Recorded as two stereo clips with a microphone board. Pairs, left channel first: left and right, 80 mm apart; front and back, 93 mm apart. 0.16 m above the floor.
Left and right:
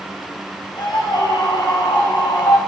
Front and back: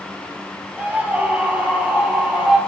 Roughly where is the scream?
Left.